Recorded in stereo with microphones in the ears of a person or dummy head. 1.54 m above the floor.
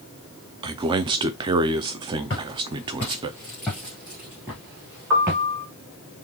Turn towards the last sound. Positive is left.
turn(degrees=-70)  # may be behind; listen again after turning